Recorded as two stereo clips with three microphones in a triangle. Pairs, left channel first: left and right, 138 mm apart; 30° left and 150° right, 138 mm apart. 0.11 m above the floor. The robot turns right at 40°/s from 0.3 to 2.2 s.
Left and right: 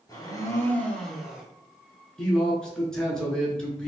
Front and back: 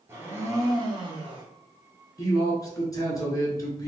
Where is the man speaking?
10° left, 1.2 m.